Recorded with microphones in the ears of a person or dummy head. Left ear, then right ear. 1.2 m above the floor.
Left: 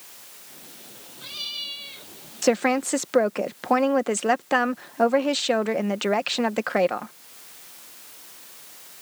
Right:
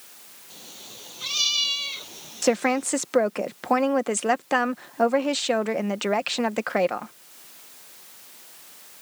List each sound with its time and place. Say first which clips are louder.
0.5 s a cat meowing: right 7 dB; 45° right (ahead or behind); by 2.9 s 40° right (ahead or behind)
2.4 s a woman speaking: left 1 dB; 5° right (ahead or behind)